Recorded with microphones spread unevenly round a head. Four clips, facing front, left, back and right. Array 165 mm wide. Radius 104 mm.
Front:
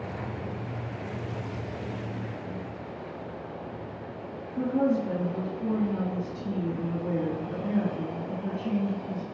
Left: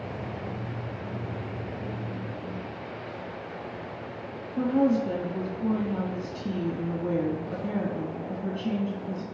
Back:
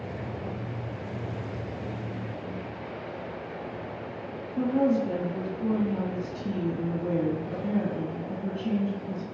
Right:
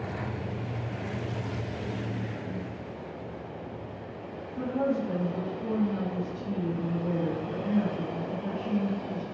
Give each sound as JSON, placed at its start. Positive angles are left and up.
{"t": 4.6, "sound": "a woman speaking", "azimuth_deg": 65, "distance_m": 1.7}